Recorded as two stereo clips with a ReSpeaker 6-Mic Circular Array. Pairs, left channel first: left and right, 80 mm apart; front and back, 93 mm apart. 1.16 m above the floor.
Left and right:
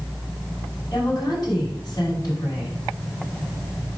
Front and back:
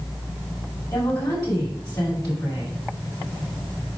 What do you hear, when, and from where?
0.9 s a woman speaking: 50° left, 5.5 m